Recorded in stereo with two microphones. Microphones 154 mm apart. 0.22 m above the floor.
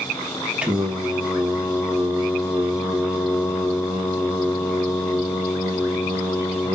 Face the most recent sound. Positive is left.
turn(degrees=-5)  # may be behind; listen again after turning